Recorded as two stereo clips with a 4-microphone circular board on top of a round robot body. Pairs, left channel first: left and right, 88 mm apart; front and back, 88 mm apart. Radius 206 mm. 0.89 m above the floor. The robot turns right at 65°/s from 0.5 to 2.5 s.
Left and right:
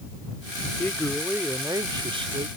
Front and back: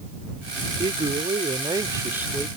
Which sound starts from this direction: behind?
A man speaking, at 0.8 s.